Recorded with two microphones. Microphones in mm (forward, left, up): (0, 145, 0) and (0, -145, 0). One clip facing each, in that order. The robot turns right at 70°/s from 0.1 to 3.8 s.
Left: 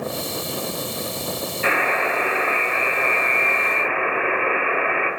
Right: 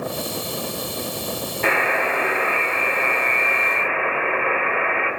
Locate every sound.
1.6 s a buzzer: 110° right, 1.4 m; by 5.1 s 45° left, 1.4 m